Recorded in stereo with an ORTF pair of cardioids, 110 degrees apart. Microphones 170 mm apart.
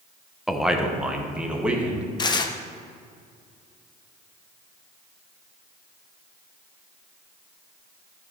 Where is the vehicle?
I don't hear a vehicle.